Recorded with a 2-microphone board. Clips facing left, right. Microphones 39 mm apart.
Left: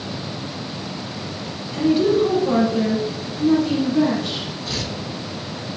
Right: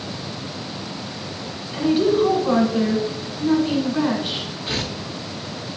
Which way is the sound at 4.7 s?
35° right (ahead or behind).